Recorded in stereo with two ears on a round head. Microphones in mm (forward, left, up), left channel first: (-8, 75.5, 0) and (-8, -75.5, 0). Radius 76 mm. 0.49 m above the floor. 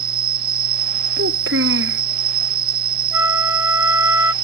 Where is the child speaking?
80° right.